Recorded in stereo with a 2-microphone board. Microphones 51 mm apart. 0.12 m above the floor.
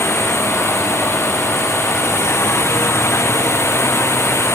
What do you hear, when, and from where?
0.0 s a drone: 60° left (ahead or behind)